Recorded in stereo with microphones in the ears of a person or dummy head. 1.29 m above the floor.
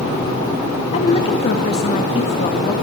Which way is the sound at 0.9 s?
35° left (ahead or behind).